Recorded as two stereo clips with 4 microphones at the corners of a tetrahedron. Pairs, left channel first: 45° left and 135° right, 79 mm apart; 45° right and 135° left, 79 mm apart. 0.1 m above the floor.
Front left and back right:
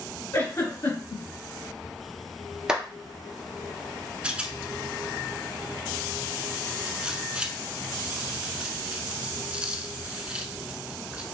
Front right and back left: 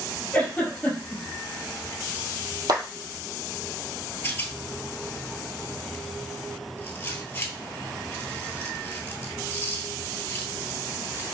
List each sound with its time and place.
0.3 s a giggle: 25° left, 2.5 m
2.7 s a clap: 145° left, 1.6 m
4.2 s a rattle: 70° right, 0.7 m